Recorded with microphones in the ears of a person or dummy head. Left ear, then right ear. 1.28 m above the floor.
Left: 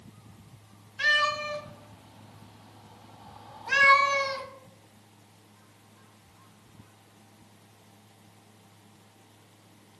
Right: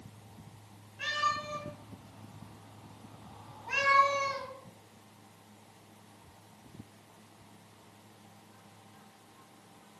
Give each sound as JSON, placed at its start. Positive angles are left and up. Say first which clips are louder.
{"t": 1.0, "sound": "a cat meowing", "louder": "left 7 dB", "side_deg": 70, "distance_m": 3.0}